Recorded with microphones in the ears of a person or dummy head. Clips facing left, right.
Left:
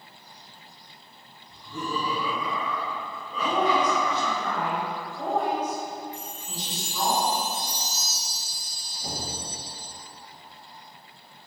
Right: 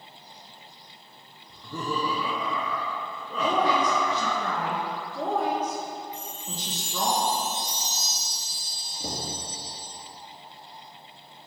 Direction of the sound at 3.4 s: 60° right (ahead or behind).